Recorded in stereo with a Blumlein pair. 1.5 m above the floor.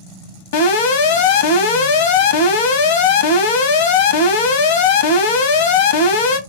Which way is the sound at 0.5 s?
55° left.